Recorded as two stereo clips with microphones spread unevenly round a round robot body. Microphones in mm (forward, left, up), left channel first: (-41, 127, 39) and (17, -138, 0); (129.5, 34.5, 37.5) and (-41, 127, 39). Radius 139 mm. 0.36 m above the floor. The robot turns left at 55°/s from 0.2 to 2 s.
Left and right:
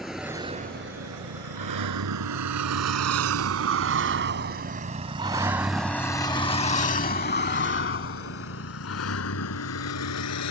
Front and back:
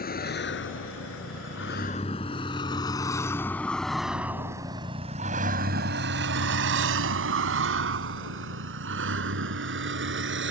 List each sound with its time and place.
0.0 s a vehicle: 10° left; by 10.5 s 135° left